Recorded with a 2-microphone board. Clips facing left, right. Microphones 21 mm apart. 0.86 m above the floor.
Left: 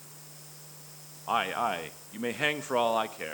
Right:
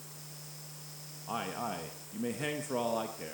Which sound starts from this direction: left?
A man speaking, at 1.3 s.